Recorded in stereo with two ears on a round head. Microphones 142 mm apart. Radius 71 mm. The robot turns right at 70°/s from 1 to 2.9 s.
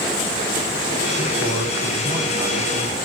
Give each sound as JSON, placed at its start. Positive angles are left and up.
{"t": 1.2, "sound": "a man speaking", "azimuth_deg": -130, "distance_m": 3.0}